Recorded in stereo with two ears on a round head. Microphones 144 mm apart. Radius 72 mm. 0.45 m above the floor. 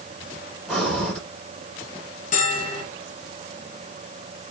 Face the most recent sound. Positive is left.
turn(degrees=50)  # may be behind; listen again after turning